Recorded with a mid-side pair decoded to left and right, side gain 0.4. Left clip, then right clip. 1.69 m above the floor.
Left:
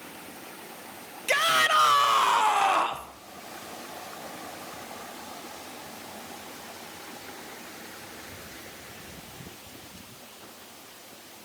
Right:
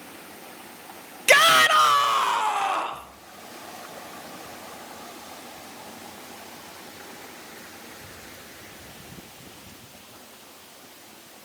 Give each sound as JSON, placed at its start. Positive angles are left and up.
{"t": 1.3, "sound": "a shout", "azimuth_deg": -65, "distance_m": 0.9}